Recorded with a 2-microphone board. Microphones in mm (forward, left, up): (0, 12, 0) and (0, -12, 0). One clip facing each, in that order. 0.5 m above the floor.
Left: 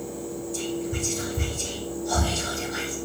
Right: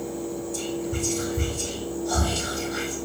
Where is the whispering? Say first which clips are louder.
Left 1 dB; 5° left (ahead or behind), 1.3 m.